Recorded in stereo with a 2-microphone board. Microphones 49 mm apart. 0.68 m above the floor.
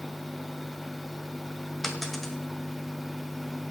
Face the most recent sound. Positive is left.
turn(degrees=5)  # may be behind; listen again after turning